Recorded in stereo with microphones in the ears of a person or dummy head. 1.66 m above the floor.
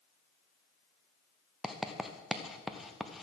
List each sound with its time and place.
1.6 s writing: centre (ahead or behind), 0.8 m